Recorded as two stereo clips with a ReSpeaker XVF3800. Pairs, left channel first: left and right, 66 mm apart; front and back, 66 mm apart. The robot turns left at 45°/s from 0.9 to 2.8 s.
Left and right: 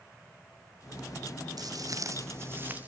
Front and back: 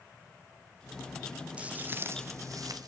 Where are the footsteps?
105° right, 1.4 m; by 2.9 s 155° right, 2 m.